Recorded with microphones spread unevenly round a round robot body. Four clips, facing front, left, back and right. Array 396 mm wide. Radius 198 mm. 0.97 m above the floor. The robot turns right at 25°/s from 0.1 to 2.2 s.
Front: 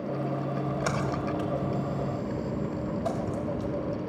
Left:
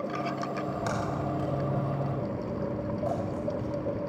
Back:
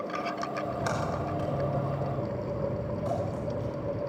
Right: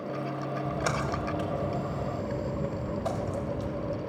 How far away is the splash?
About 5 m.